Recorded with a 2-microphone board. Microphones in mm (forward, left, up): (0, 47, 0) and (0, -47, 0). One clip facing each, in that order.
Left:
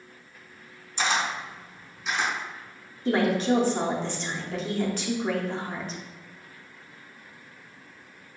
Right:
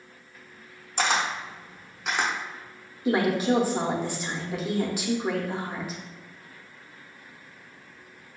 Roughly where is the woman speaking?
Centre.